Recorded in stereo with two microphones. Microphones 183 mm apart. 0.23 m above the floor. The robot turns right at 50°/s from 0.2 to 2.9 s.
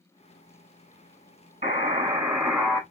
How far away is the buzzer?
About 1.1 m.